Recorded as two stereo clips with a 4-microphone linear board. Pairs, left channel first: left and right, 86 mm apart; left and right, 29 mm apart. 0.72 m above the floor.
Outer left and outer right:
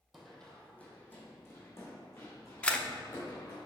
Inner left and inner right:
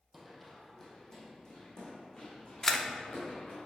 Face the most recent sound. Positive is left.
turn(degrees=15)  # may be behind; listen again after turning